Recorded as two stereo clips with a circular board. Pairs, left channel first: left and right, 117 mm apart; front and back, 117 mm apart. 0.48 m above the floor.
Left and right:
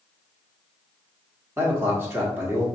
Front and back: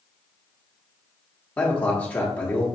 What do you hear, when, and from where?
1.6 s a man speaking: 50° right, 1.2 m